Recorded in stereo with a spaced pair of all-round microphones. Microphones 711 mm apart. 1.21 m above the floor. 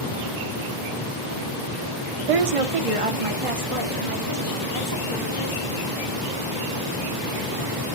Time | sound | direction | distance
2.3 | a woman speaking | 55° right (ahead or behind) | 0.5 m